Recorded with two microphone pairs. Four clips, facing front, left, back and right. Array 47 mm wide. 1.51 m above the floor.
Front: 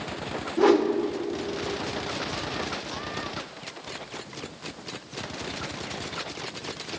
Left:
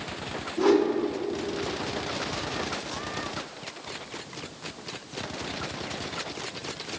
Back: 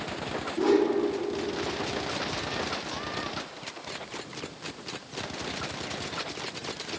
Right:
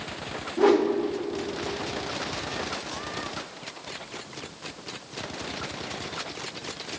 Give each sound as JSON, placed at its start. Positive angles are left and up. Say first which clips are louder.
{"t": 0.6, "sound": "a whoosh", "louder": "right 1 dB, front 3 dB", "azimuth_deg": -40, "distance_m": 1.5}